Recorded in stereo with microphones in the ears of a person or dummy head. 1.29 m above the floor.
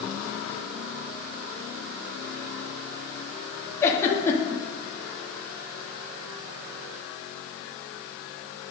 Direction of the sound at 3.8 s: 15° left (ahead or behind).